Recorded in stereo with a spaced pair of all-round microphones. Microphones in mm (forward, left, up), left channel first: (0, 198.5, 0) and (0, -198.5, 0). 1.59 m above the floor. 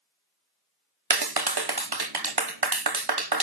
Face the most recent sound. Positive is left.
turn(degrees=-70)  # may be behind; listen again after turning